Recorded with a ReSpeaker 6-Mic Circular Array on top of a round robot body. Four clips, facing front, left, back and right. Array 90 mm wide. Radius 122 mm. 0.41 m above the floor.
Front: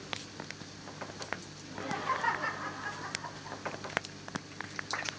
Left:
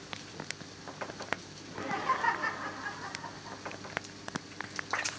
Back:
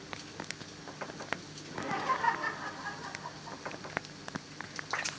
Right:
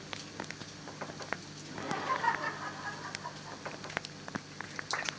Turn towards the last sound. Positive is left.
turn(degrees=30)